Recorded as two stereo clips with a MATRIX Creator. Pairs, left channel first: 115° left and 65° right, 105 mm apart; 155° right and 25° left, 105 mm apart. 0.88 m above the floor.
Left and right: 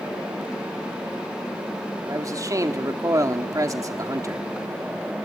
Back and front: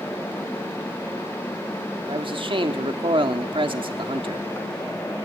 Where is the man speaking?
10° right, 1.7 m.